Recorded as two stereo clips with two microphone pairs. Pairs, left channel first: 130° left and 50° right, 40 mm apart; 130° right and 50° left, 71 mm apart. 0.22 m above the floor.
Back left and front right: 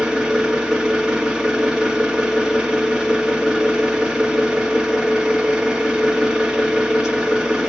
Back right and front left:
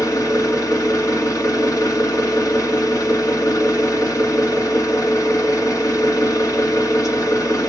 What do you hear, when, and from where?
0.0 s an engine running: 120° right, 1.5 m